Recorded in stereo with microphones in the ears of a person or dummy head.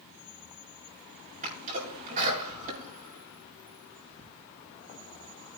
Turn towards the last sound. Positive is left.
turn(degrees=-45)  # may be behind; listen again after turning